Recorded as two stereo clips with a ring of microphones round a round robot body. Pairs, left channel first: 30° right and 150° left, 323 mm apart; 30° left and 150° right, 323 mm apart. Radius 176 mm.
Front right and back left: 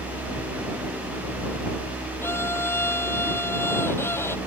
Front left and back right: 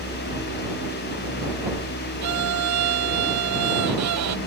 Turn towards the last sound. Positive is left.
turn(degrees=-115)